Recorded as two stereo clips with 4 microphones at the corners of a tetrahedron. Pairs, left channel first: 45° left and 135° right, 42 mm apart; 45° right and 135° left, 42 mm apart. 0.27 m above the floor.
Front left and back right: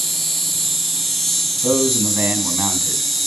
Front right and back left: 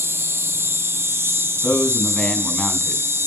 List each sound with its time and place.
0.0 s an insect: 130° left, 1.3 m
1.6 s a man speaking: 110° right, 2 m